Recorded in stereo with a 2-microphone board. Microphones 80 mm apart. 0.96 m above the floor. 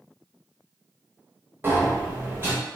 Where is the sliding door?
30° right (ahead or behind), 0.8 m.